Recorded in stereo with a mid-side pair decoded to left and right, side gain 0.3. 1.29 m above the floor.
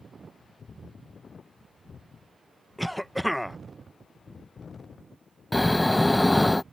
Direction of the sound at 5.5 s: 15° left.